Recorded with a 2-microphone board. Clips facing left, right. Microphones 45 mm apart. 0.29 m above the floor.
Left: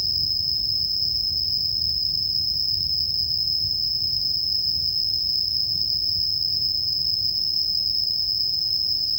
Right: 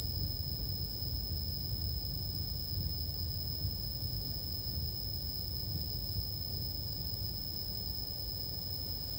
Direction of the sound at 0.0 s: 75° left (ahead or behind).